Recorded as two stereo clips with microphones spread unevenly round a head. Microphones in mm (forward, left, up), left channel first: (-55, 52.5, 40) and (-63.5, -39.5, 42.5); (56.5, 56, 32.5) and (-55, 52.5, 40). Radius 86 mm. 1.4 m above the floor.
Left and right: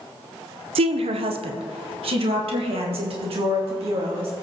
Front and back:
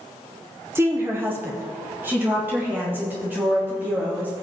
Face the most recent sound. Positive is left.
turn(degrees=-100)